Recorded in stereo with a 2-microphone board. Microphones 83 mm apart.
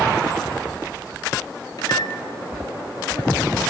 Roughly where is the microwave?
Left.